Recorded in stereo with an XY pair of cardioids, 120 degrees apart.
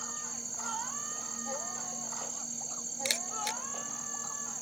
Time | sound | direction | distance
0.0 | an insect | 15° right | ?
3.0 | a camera shutter | 5° left | ?